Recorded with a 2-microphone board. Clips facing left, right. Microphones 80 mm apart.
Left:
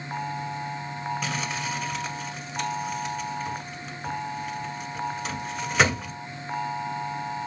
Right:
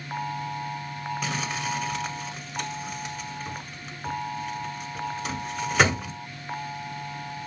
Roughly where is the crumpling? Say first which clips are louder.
Even; centre.